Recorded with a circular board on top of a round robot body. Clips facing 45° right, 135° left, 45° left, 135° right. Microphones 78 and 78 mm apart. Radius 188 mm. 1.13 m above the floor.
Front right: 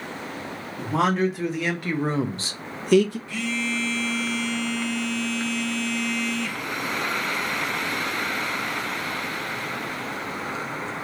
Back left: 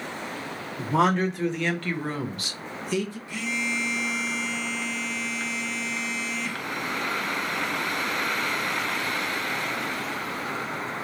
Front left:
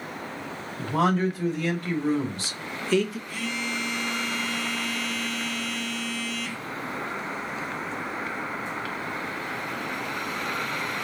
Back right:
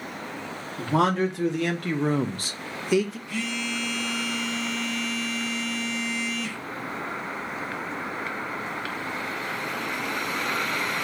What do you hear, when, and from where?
0.8 s a man speaking: 135° right, 1.6 m; by 3.2 s 40° right, 0.6 m
3.3 s a phone buzzing: 150° right, 1.4 m